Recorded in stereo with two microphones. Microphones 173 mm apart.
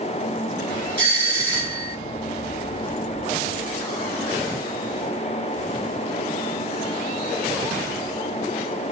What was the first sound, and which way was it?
A doorbell, 10° left (ahead or behind).